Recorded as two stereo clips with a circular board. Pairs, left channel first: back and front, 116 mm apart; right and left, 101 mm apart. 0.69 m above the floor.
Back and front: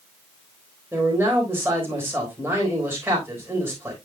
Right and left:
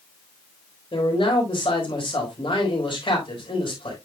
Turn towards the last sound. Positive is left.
turn(degrees=-70)